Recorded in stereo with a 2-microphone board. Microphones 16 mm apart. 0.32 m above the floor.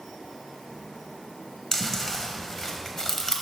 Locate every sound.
1.7 s chewing: 25° left (ahead or behind), 0.9 m